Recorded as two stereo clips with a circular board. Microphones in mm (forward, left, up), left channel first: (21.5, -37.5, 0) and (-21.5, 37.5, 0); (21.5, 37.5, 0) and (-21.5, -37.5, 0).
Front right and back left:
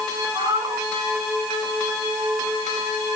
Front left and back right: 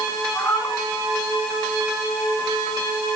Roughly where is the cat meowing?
Left.